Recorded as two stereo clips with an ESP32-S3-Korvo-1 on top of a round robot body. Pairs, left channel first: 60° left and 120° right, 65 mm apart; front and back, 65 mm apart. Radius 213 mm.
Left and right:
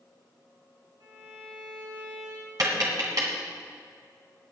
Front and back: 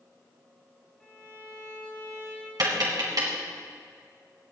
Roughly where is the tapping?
Behind right.